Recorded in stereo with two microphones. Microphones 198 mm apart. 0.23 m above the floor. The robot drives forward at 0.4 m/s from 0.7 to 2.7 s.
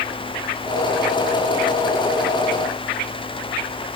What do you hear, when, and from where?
Only background noise.